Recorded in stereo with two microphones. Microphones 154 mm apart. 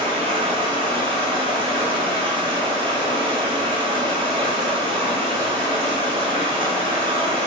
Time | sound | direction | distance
0.0 | running water | 35° right (ahead or behind) | 1.1 m